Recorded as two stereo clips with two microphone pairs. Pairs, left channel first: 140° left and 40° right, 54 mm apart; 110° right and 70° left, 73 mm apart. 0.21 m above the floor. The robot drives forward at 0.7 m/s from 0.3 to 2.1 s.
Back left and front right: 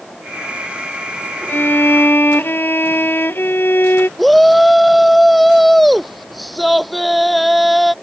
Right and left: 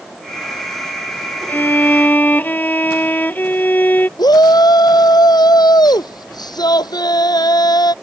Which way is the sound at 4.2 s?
130° right.